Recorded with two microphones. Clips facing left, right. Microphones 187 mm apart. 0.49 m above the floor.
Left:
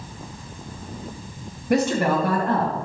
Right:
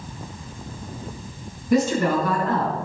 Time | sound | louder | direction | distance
1.7 | a woman speaking | right 1 dB | 75° left (ahead or behind) | 3 m